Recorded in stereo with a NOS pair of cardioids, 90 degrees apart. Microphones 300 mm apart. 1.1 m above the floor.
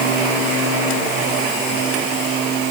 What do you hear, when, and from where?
Only background noise.